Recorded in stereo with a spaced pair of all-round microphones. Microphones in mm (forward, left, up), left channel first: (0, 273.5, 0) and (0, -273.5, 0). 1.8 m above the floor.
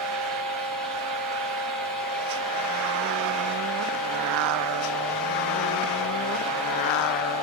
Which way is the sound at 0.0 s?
Centre (ahead or behind).